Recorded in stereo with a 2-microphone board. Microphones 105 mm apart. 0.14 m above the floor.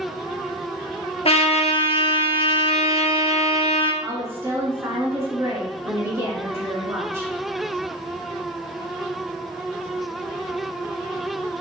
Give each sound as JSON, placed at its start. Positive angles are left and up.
{"t": 1.2, "sound": "a trumpet", "side_deg": 70, "distance_m": 0.7}
{"t": 4.0, "sound": "a woman speaking", "side_deg": -25, "distance_m": 1.3}